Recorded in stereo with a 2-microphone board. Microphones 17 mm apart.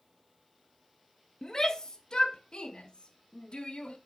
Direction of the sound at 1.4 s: 30° left (ahead or behind).